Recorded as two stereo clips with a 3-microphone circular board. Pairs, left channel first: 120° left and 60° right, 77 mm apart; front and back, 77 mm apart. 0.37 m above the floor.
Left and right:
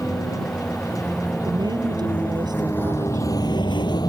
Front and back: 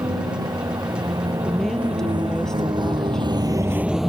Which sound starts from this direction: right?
A woman speaking, at 1.4 s.